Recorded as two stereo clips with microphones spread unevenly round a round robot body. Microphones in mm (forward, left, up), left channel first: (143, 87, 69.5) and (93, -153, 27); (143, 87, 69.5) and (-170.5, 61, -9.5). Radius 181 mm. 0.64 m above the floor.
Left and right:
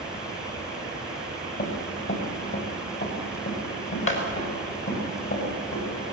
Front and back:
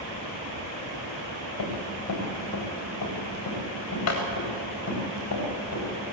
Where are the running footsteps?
40° left, 6 m; by 5.8 s 45° left, 10.5 m.